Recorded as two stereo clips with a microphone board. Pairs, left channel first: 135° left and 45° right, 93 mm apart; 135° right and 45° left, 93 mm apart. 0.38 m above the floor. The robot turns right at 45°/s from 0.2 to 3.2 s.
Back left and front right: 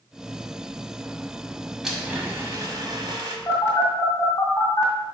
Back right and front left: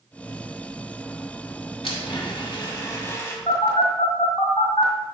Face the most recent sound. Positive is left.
turn(degrees=-170)